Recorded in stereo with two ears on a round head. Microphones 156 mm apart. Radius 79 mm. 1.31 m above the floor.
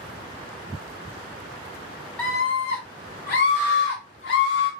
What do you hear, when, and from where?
2.2 s a scream: 10° left (ahead or behind), 0.5 m; by 4.7 s 65° left (ahead or behind), 1.5 m